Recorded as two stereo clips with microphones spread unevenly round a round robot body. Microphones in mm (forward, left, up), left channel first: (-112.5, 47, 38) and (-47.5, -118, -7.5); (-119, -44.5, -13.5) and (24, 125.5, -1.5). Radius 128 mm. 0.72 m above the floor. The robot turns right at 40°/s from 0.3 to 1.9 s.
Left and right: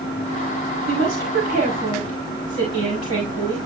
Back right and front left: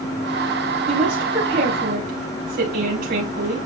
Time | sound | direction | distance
0.9 | a woman speaking | 45° right | 4.5 m